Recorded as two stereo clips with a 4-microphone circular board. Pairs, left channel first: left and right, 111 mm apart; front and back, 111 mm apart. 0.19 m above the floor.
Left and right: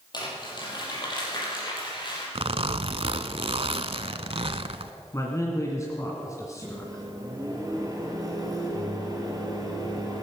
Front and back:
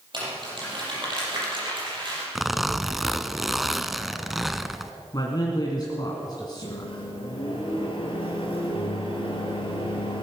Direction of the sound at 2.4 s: 90° right.